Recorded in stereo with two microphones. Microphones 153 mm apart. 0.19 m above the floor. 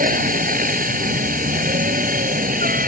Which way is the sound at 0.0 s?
65° right (ahead or behind).